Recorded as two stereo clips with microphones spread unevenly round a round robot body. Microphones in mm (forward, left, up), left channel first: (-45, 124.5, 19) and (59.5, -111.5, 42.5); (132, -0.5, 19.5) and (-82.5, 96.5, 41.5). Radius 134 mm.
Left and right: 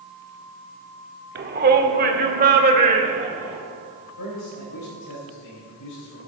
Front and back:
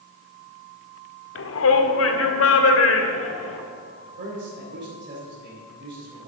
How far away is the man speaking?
About 4 m.